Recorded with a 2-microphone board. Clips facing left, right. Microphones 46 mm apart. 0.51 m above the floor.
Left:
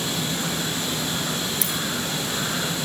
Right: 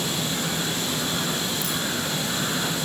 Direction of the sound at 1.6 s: 80° left.